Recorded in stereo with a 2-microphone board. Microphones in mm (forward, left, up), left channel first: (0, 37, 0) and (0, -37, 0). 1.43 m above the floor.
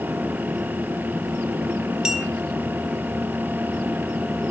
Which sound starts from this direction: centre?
A clink, at 2.0 s.